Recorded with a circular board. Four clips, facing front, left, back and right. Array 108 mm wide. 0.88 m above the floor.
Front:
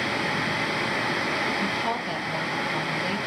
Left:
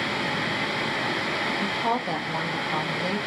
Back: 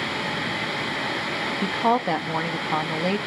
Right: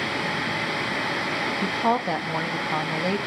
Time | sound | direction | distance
1.6 | a woman speaking | 160° right | 1.4 m